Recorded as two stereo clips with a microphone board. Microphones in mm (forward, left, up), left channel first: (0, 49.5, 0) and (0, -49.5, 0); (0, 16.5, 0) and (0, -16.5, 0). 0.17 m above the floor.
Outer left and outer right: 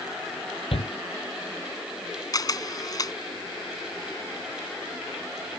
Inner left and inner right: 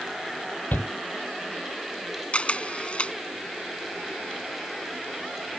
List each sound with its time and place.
0.7 s a shout: 70° left (ahead or behind)
2.3 s a camera shutter: 40° left (ahead or behind)